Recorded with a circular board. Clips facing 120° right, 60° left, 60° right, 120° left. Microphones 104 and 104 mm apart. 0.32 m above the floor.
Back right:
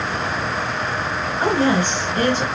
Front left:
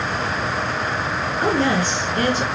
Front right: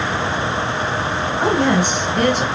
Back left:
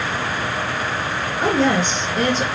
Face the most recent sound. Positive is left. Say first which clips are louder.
# back right 2 dB, front right 1 dB
turn(degrees=-55)